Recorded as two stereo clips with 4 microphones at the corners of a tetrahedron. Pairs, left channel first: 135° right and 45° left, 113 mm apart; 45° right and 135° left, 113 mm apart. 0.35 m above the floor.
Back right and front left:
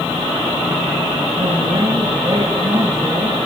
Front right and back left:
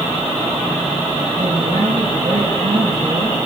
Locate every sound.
1.4 s a man speaking: 95° left, 8 m